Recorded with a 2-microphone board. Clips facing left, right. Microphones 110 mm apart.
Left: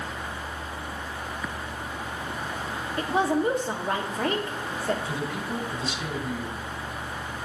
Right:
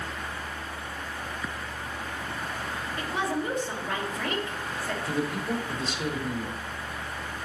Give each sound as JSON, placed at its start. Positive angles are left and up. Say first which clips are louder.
{"t": 3.0, "sound": "a woman speaking", "louder": "left 6 dB", "side_deg": 40, "distance_m": 1.4}
{"t": 5.0, "sound": "a man speaking", "louder": "right 2 dB", "side_deg": -55, "distance_m": 2.0}